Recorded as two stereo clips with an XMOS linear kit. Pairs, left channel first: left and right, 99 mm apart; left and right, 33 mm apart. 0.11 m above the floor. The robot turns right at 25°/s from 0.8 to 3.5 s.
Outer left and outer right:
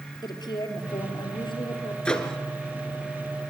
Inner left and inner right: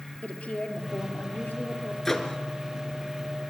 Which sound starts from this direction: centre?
A microwave, at 2.0 s.